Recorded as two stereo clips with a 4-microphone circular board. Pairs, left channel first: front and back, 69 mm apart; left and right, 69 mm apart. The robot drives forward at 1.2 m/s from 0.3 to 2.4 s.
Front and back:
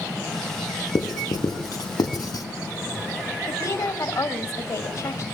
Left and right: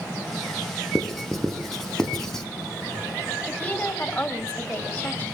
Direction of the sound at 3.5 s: 25° left.